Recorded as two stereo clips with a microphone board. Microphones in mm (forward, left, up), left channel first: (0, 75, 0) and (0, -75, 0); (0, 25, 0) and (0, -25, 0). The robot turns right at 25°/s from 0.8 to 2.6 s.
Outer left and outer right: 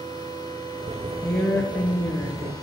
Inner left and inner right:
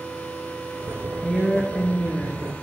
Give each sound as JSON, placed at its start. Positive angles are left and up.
{"t": 1.2, "sound": "a woman speaking", "side_deg": 10, "distance_m": 1.3}